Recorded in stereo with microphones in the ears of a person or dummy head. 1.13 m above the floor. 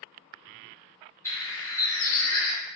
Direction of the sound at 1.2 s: 15° left (ahead or behind).